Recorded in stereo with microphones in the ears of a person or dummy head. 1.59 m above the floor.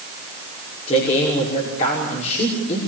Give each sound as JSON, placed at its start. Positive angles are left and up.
{"t": 0.9, "sound": "a man speaking", "side_deg": 35, "distance_m": 5.5}